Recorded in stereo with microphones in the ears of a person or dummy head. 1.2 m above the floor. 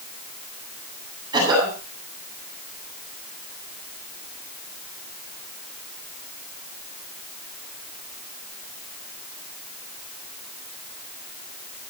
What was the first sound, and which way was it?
A cough, 25° right (ahead or behind).